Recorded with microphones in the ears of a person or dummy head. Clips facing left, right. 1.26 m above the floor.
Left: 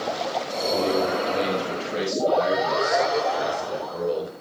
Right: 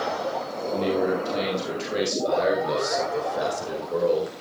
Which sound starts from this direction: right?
A man speaking, at 0.7 s.